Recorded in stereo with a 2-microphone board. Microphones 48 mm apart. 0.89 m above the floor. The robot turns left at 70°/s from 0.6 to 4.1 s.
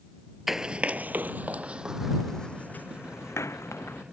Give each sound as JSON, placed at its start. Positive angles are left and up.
{"t": 0.5, "sound": "running footsteps", "side_deg": -5}